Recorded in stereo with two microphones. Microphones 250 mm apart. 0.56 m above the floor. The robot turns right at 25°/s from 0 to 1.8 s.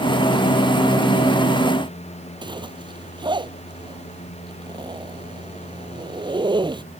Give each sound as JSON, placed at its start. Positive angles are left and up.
{"t": 2.4, "sound": "a zipper", "side_deg": -20}